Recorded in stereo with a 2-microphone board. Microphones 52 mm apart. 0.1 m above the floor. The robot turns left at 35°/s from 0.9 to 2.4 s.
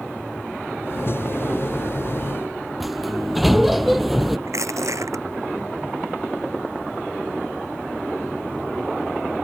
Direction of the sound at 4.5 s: 70° right (ahead or behind).